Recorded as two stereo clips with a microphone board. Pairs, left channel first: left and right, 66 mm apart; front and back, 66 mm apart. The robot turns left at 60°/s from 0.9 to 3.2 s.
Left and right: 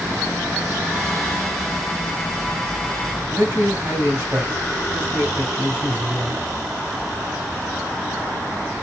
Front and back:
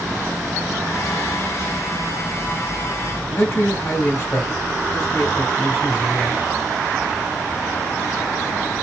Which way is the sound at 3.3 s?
45° right.